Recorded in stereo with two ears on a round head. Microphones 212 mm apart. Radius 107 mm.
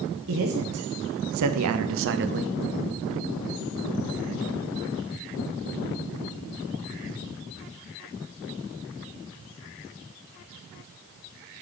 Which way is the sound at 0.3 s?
55° right (ahead or behind).